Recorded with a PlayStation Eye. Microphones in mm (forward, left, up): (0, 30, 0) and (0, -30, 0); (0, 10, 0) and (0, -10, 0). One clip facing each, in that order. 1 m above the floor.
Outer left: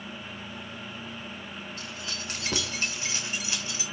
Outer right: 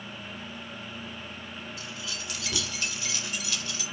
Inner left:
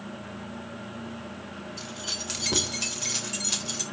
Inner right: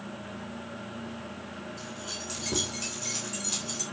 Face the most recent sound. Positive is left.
turn(degrees=25)  # may be behind; listen again after turning